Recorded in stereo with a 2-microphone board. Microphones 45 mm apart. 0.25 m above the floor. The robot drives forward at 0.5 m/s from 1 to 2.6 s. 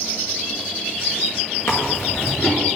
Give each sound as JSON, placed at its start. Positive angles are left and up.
{"t": 1.7, "sound": "chewing", "side_deg": 70, "distance_m": 3.0}